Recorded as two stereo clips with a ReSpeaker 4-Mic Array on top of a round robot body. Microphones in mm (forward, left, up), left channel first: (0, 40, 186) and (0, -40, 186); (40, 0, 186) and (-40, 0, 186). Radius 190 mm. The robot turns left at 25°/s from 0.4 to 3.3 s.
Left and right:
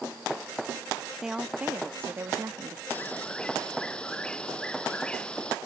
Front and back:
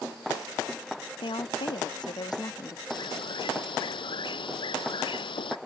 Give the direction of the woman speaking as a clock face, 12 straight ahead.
12 o'clock.